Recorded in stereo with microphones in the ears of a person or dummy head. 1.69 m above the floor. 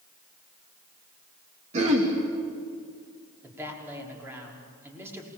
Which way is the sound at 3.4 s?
15° right (ahead or behind).